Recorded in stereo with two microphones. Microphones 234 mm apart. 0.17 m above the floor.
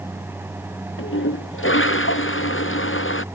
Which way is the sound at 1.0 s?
65° left (ahead or behind).